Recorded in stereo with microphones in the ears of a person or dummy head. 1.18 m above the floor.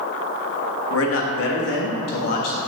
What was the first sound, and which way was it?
A man speaking, 75° left (ahead or behind).